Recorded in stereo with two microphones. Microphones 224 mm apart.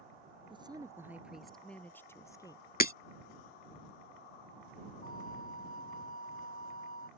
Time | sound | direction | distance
0.5 | a woman speaking | 25° right (ahead or behind) | ?
2.8 | breaking glass | 45° left (ahead or behind) | ?
5.0 | a flute | 40° left (ahead or behind) | ?